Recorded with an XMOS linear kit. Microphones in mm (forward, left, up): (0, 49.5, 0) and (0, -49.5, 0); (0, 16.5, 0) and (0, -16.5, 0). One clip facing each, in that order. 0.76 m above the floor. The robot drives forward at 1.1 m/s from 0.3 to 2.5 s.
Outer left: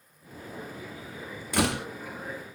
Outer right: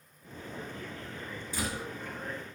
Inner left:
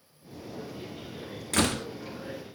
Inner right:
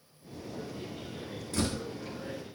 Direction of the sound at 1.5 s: 70° left (ahead or behind).